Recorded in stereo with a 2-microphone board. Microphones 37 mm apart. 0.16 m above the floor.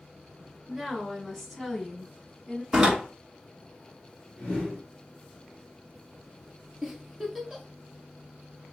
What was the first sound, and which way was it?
A woman speaking, 10° right (ahead or behind).